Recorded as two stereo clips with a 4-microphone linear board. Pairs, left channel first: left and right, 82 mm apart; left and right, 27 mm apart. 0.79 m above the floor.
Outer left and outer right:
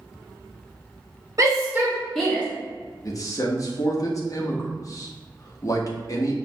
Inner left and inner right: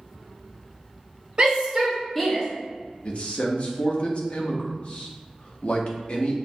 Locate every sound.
1.4 s a shout: 40° right (ahead or behind), 1.2 m; by 2.4 s 20° left (ahead or behind), 1.0 m
3.0 s a man speaking: 45° left (ahead or behind), 0.7 m